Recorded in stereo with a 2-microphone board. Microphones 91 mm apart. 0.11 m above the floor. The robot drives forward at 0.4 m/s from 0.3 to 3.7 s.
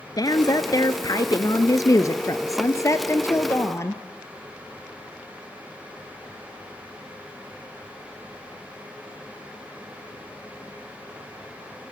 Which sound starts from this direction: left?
A woman speaking, at 0.2 s.